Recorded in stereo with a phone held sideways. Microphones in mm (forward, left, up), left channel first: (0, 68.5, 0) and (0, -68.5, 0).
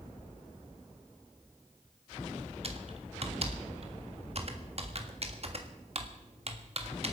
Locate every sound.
2.6 s typing on a keyboard: 50° right (ahead or behind), 1.6 m